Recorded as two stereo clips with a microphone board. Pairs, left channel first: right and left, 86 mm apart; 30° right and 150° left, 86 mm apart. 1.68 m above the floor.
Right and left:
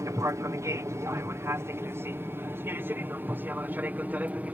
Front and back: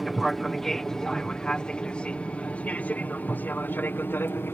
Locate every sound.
0.0 s an aircraft: 60° left; by 4.5 s 25° left